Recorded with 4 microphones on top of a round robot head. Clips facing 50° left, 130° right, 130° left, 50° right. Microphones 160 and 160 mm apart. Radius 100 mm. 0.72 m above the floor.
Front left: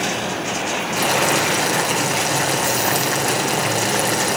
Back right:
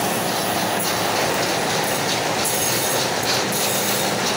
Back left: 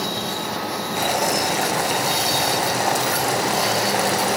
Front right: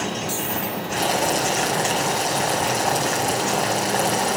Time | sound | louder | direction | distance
1.0 | boiling | front left 5 dB, even | 50° left | 5 m